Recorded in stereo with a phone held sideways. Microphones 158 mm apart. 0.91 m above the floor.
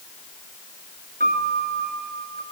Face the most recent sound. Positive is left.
turn(degrees=-70)  # may be behind; listen again after turning